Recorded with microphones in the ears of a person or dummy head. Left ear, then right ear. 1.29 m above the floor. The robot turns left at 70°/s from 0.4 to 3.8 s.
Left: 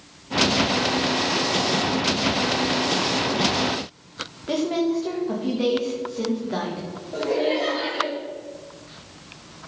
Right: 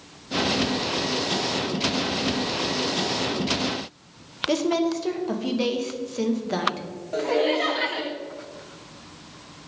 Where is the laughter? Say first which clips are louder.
Even; 60° right (ahead or behind), 1.7 m.